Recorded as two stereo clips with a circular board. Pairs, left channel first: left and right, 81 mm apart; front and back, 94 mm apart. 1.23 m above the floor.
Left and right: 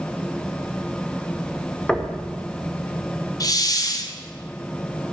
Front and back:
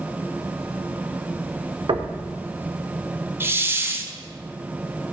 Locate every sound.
1.9 s knocking: 170° left, 0.8 m
3.4 s a hiss: 120° left, 0.8 m